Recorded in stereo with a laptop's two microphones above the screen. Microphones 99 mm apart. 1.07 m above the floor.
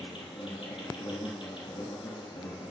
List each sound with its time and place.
0.0 s an insect: 55° left (ahead or behind), 3 m